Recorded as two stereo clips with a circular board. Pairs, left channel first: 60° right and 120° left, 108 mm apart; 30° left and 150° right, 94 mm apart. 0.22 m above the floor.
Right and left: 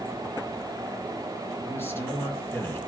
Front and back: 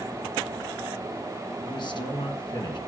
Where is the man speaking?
5° left, 3 m.